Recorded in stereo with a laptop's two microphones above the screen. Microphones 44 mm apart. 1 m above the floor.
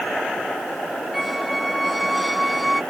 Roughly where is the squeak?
Centre.